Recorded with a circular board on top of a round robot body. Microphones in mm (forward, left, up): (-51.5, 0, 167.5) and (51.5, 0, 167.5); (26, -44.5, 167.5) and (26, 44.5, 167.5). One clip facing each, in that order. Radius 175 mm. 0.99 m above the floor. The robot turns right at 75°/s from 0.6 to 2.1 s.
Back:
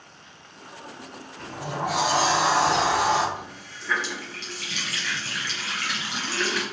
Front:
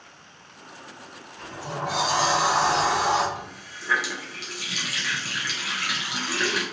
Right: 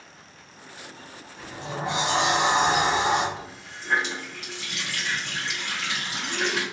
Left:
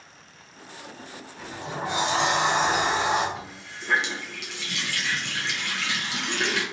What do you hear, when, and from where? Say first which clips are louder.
1.4 s a sliding door: back 2 dB, even; 125° left, 0.9 m; by 3.2 s straight behind, 0.9 m
3.4 s a running tap: even, even; 80° left, 0.7 m